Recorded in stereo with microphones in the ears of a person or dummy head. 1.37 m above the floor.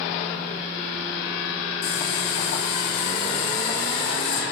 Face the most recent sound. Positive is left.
turn(degrees=55)  # may be behind; listen again after turning